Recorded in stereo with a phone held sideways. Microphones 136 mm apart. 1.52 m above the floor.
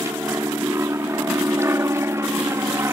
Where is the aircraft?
20° right (ahead or behind).